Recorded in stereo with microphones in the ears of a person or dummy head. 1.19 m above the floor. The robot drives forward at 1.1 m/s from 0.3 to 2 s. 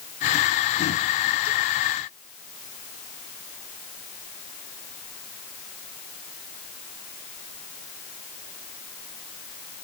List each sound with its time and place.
Only background noise.